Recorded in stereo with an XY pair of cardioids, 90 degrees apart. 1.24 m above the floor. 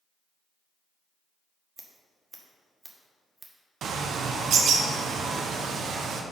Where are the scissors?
20° right, 1.4 m.